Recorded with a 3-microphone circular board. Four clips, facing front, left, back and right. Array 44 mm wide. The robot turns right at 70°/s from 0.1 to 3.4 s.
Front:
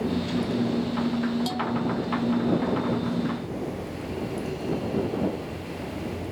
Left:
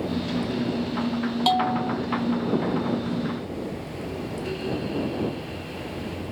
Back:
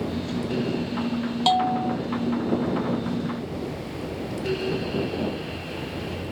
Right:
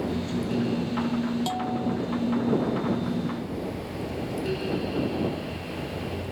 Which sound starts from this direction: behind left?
A bell, at 1.5 s.